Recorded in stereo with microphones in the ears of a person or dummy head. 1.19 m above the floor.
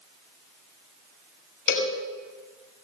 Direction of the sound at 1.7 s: 60° left (ahead or behind).